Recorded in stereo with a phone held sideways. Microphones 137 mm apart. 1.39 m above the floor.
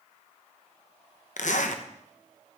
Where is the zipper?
65° left (ahead or behind), 0.9 m.